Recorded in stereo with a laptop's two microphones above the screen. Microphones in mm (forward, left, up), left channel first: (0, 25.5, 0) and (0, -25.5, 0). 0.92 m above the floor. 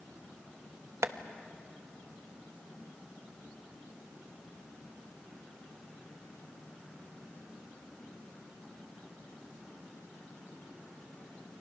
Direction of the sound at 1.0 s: 65° right (ahead or behind).